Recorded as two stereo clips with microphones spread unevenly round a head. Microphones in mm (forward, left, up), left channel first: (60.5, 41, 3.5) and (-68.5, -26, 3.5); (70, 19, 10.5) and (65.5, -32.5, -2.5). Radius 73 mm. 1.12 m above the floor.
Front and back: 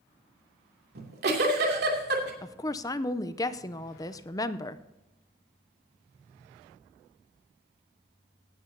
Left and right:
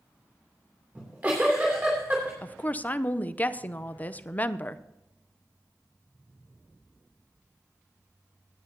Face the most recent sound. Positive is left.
turn(degrees=35)